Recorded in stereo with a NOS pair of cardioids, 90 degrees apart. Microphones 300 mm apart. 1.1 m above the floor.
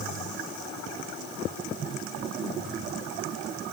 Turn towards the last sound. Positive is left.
No sound to turn to.